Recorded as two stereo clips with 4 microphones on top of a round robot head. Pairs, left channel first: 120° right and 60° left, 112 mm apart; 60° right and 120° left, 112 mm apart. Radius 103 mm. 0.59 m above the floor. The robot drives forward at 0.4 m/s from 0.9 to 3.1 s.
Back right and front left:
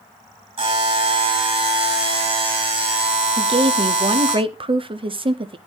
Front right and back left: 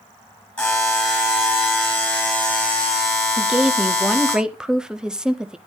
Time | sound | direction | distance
0.6 | a buzzer | 20° left | 5 m
3.4 | a woman speaking | 40° left | 1.1 m